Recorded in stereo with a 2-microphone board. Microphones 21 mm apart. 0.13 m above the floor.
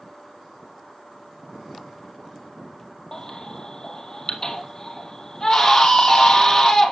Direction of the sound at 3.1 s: 30° left (ahead or behind).